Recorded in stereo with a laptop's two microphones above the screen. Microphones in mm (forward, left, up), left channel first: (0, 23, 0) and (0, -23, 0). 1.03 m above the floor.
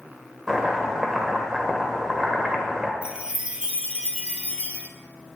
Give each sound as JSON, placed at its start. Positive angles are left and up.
{"t": 0.5, "sound": "chopping", "side_deg": -10, "distance_m": 1.5}
{"t": 3.0, "sound": "a chime", "side_deg": -25, "distance_m": 0.7}